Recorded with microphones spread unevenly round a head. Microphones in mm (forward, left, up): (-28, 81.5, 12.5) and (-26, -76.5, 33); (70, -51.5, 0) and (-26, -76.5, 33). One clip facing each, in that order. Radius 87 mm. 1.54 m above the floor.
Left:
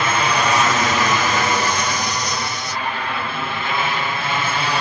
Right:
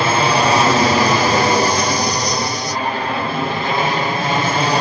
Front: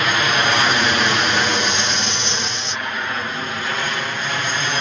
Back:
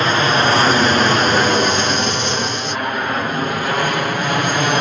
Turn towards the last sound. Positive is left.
turn(degrees=-135)